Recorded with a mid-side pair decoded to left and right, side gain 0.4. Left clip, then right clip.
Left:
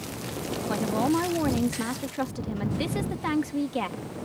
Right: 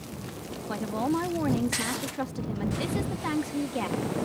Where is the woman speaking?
25° left.